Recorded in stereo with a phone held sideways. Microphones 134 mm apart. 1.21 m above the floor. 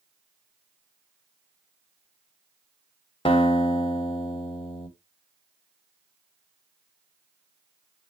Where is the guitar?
40° left (ahead or behind), 0.9 m.